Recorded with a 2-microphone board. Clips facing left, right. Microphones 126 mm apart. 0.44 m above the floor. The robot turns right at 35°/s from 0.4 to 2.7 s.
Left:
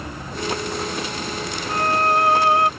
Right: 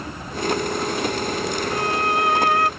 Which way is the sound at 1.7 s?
125° left.